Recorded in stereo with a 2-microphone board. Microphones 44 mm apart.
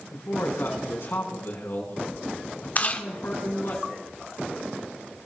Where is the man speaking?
60° left (ahead or behind), 5.5 m.